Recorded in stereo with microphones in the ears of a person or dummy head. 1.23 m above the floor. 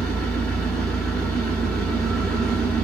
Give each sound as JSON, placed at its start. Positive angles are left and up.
{"t": 0.0, "sound": "an engine running", "side_deg": 5, "distance_m": 0.9}